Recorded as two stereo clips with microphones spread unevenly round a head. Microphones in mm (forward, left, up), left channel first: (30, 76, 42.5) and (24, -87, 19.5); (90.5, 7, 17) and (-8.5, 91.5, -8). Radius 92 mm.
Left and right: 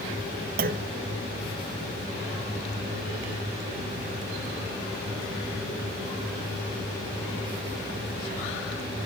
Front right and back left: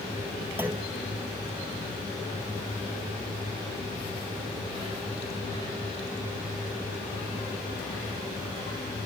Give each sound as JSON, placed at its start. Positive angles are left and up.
{"t": 0.6, "sound": "a clunk", "azimuth_deg": -135, "distance_m": 0.7}